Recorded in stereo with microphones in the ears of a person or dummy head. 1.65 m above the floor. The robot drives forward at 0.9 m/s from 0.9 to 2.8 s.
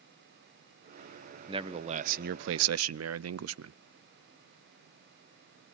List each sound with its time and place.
1.5 s a man speaking: 25° right (ahead or behind), 1.2 m; by 3.7 s 75° right (ahead or behind), 0.6 m